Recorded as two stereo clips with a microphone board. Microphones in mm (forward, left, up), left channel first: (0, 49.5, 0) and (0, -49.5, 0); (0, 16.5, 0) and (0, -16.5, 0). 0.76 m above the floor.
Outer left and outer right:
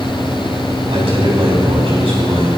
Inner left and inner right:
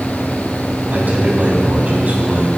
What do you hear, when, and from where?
0.9 s a man speaking: 65° right (ahead or behind), 4.5 m